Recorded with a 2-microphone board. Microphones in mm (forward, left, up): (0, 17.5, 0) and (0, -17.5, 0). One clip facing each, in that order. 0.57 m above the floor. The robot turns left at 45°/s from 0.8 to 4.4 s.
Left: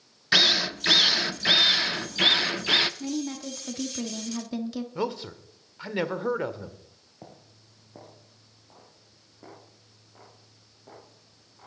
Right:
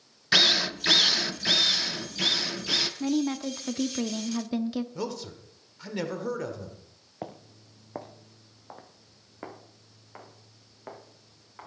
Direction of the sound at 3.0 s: 30° right (ahead or behind).